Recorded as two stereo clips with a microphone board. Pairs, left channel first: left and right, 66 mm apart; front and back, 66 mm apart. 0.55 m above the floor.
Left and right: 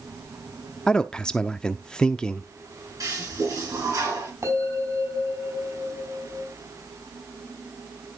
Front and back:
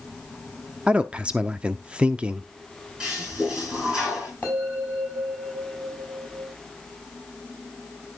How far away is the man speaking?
About 0.6 m.